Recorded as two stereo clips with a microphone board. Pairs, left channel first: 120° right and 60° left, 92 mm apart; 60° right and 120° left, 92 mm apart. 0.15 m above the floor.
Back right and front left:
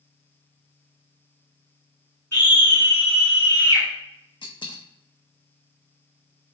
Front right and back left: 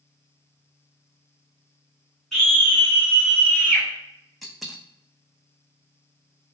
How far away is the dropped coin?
About 0.7 m.